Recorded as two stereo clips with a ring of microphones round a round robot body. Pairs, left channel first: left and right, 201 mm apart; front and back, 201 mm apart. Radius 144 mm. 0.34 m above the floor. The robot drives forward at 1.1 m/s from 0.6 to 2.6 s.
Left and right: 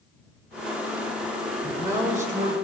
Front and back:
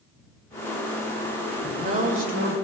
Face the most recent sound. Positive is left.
turn(degrees=-165)